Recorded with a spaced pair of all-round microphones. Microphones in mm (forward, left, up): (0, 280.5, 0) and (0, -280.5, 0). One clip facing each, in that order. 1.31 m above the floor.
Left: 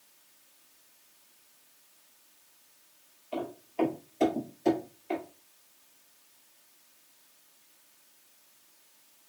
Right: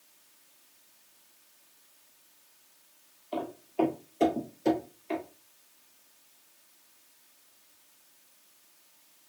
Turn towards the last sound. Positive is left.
turn(degrees=-5)  # may be behind; listen again after turning